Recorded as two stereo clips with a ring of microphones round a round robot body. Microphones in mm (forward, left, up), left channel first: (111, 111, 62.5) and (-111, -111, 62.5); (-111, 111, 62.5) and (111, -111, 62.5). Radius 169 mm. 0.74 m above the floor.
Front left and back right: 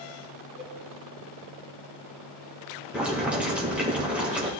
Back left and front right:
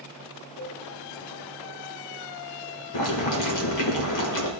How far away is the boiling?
About 1.5 m.